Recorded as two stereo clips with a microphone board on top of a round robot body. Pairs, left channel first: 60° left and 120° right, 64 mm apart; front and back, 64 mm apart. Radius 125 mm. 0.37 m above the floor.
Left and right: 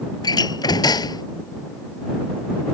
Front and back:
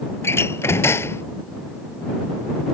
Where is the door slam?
50° left.